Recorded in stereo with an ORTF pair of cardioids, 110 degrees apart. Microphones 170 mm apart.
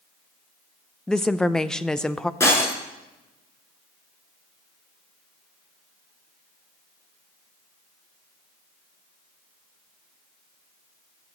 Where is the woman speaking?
5° left, 0.5 m.